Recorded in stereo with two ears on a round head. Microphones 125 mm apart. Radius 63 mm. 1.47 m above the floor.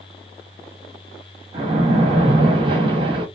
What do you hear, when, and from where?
1.5 s a splash: 35° right (ahead or behind), 0.9 m